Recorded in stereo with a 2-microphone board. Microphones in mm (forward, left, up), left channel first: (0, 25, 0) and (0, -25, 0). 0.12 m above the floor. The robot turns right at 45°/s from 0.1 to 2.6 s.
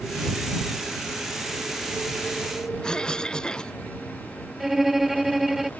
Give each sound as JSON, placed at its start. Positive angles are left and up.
{"t": 2.8, "sound": "a cough", "side_deg": 15}
{"t": 4.6, "sound": "a violin", "side_deg": -5}